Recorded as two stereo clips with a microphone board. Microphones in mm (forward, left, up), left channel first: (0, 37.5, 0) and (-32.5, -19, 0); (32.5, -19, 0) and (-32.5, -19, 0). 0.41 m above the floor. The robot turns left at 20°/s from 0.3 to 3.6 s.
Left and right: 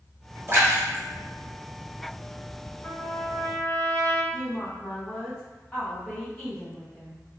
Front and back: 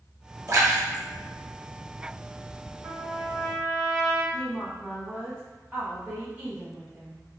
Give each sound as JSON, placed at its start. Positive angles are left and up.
{"t": 0.5, "sound": "a splash", "azimuth_deg": -160, "distance_m": 0.8}
{"t": 2.8, "sound": "a trumpet", "azimuth_deg": 120, "distance_m": 1.8}
{"t": 4.3, "sound": "a woman speaking", "azimuth_deg": 130, "distance_m": 1.9}